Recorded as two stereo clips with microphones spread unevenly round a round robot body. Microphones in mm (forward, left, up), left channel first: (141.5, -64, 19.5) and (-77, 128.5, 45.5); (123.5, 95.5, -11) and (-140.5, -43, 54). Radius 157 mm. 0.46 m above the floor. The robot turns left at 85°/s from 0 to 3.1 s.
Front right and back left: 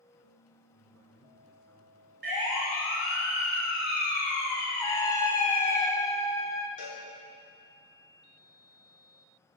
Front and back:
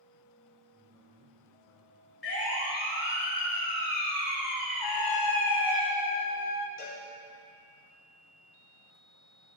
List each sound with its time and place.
0.7 s a man speaking: 125° left, 5 m; by 2.1 s 5° left, 5 m
2.2 s a siren: 85° left, 6.5 m; by 5.8 s 15° left, 8.5 m
4.8 s a trumpet: 35° left, 1.3 m
6.8 s a cowbell: 35° right, 6 m